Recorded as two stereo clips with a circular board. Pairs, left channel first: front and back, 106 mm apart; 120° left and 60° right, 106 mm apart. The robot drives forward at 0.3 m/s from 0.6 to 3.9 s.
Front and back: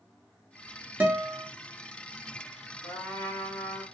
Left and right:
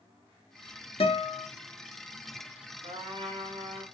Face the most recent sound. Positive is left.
turn(degrees=-80)